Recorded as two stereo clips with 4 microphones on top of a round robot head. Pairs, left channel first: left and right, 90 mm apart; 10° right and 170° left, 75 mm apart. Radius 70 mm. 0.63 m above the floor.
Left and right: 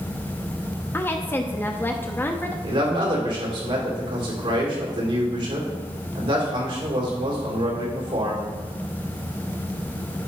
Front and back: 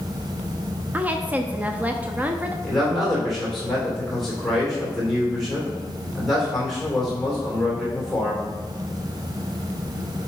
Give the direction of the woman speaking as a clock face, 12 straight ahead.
8 o'clock.